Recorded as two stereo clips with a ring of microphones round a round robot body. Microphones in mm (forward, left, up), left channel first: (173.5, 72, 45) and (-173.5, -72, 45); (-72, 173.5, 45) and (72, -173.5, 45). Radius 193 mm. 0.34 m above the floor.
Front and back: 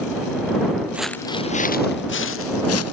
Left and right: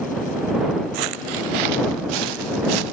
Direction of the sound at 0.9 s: 70° right.